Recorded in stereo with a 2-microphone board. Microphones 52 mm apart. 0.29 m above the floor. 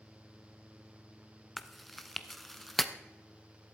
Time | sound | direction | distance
1.6 | chewing | centre (ahead or behind) | 0.7 m